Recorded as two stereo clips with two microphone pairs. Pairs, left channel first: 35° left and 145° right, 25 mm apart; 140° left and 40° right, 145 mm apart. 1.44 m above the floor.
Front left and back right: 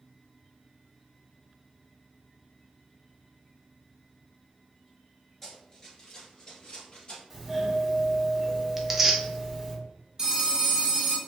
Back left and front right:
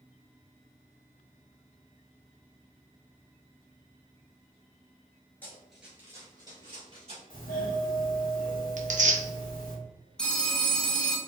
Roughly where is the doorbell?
Behind left.